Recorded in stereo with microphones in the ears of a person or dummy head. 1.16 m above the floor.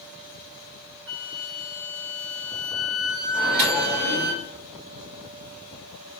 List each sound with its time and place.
1.1 s a flute: 70° right (ahead or behind), 1.2 m
3.3 s a microwave: 55° right (ahead or behind), 1.8 m